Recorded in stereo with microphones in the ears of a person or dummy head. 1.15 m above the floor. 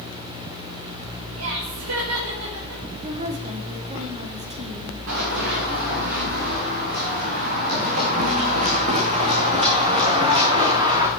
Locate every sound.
1.4 s laughter: 80° right, 5.5 m
3.0 s a woman speaking: 30° right (ahead or behind), 2.5 m
5.1 s running footsteps: 60° right (ahead or behind), 5.5 m; by 11.1 s 20° right (ahead or behind), 4.5 m